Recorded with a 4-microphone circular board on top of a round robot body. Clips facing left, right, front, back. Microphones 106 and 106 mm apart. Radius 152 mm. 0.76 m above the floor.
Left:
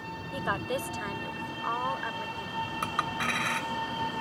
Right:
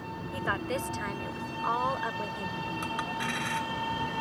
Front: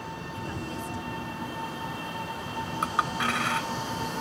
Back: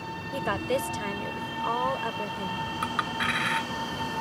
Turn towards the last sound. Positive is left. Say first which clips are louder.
# left 2 dB, front 3 dB
turn(degrees=55)